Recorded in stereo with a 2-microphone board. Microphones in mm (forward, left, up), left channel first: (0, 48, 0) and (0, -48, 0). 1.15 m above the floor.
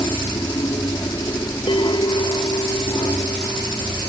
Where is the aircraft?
45° left (ahead or behind).